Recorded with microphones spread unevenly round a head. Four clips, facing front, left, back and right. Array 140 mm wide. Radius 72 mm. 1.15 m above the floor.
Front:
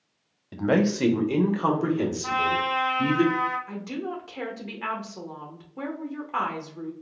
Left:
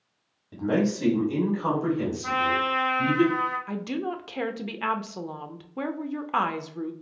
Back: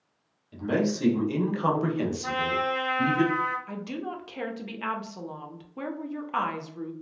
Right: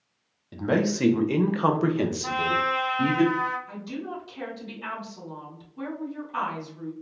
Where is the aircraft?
I don't hear an aircraft.